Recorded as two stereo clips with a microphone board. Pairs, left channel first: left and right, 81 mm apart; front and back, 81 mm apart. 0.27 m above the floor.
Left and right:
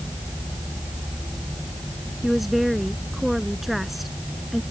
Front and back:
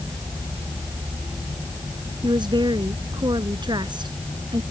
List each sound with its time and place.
2.2 s a woman speaking: straight behind